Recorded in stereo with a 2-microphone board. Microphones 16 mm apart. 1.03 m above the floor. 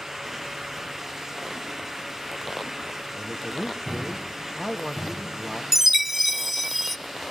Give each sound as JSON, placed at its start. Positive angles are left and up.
{"t": 3.1, "sound": "a man speaking", "side_deg": -15, "distance_m": 1.5}
{"t": 5.7, "sound": "a chime", "side_deg": -10, "distance_m": 0.8}